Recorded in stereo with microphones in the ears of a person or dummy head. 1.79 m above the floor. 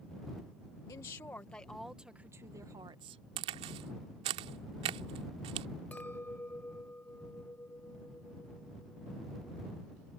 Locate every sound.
0.9 s a woman speaking: 15° left (ahead or behind); by 3.2 s 35° right (ahead or behind)
3.4 s a crack: 20° right (ahead or behind)
5.9 s a clink: 5° left (ahead or behind)